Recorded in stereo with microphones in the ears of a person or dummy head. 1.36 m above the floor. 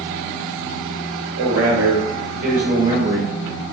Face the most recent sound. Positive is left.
turn(degrees=-20)  # may be behind; listen again after turning